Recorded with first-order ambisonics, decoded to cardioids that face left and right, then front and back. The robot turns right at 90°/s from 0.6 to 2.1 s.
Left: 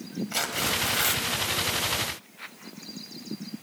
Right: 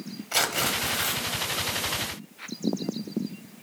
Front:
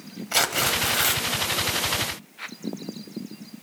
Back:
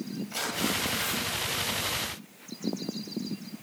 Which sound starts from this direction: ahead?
Tearing paper, at 0.3 s.